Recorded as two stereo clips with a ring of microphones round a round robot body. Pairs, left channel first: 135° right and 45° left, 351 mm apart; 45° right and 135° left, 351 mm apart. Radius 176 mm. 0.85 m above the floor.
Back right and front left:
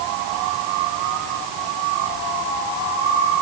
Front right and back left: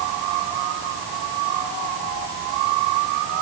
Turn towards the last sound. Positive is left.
No sound to turn to.